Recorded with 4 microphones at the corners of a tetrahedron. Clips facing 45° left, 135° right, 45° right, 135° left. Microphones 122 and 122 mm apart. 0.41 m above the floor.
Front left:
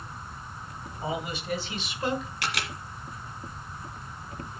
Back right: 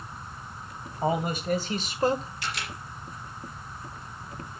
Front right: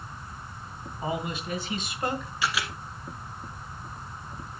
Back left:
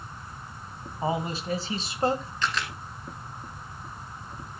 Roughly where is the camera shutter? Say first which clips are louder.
Front left 2 dB, even; ahead left.